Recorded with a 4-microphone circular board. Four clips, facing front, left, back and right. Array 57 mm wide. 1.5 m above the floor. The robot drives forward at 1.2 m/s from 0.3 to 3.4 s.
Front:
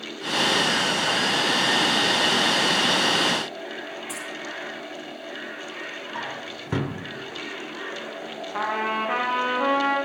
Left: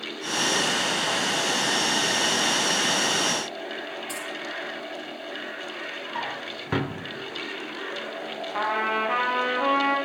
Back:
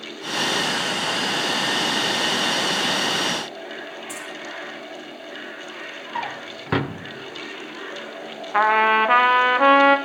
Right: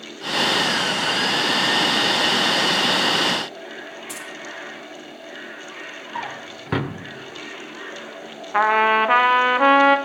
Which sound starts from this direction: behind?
A drawer, at 6.2 s.